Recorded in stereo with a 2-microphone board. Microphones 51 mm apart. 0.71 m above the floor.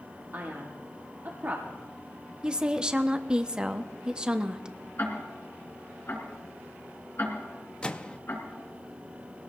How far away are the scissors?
I don't hear scissors.